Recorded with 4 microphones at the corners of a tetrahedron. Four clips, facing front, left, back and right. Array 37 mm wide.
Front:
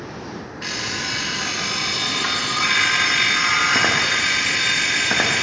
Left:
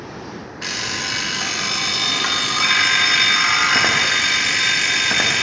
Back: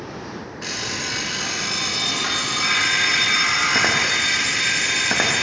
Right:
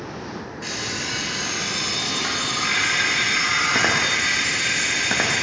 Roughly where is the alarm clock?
Left.